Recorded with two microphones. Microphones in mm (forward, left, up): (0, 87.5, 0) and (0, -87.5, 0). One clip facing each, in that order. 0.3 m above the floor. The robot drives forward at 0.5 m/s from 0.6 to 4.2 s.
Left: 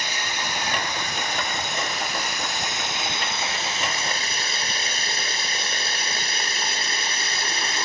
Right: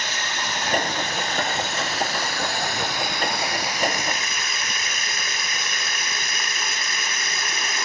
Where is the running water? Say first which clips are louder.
Right 1 dB; 15° left (ahead or behind), 3 m; by 7.8 s 30° left (ahead or behind), 1.3 m.